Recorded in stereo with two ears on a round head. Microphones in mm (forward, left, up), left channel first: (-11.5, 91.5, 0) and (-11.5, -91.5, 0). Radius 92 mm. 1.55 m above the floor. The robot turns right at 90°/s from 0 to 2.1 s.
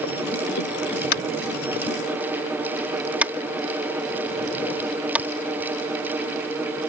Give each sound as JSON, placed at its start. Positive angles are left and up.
{"t": 1.1, "sound": "tapping", "side_deg": 80}